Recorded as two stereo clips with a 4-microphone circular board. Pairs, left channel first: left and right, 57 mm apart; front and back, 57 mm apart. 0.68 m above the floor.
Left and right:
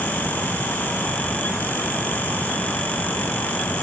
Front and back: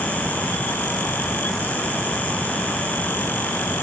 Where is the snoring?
I don't hear snoring.